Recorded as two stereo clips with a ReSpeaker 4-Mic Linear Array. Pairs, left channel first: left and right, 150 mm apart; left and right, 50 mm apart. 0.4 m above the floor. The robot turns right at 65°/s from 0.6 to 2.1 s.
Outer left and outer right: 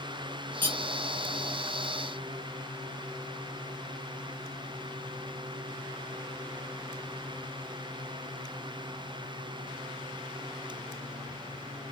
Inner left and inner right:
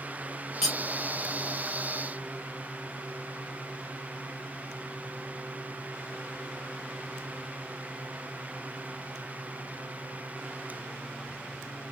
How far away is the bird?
I don't hear a bird.